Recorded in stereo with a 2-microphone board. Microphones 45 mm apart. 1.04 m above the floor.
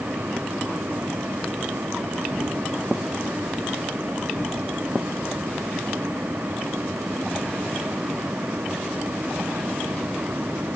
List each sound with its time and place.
Only background noise.